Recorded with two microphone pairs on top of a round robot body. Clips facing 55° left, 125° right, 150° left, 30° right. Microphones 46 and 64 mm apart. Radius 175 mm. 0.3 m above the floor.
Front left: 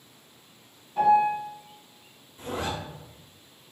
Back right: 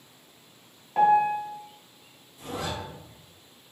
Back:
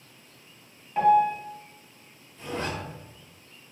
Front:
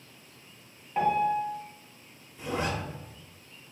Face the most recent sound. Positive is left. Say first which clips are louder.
# front left 2 dB, front 1 dB
turn(degrees=30)